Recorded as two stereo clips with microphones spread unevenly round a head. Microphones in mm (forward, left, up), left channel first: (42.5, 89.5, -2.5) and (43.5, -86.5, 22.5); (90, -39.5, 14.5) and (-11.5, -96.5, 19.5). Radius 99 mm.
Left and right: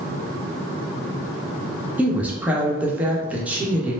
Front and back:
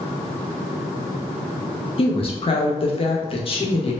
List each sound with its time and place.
2.0 s a woman speaking: 5° right, 1.1 m